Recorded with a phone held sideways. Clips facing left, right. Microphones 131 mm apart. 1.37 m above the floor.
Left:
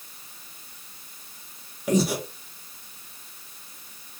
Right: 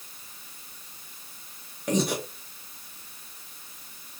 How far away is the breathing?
About 0.9 m.